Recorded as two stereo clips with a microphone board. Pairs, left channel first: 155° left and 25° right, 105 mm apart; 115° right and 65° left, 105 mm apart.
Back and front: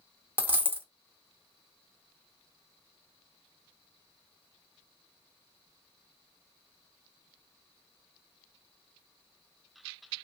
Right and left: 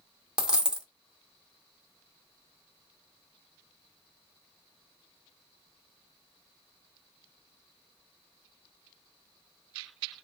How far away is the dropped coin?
About 0.6 m.